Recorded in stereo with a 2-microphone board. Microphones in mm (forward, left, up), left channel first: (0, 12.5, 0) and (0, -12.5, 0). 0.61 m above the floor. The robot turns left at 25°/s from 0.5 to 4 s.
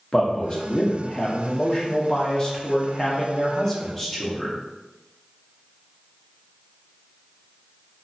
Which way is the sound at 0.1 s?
110° left.